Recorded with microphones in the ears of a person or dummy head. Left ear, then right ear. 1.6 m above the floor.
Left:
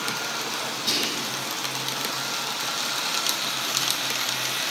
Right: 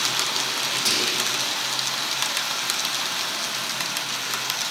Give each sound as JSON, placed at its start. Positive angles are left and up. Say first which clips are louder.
{"t": 0.8, "sound": "whispering", "louder": "right 2 dB", "side_deg": -70, "distance_m": 4.0}